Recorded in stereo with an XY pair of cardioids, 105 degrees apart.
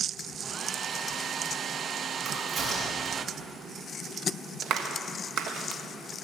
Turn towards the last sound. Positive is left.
turn(degrees=-65)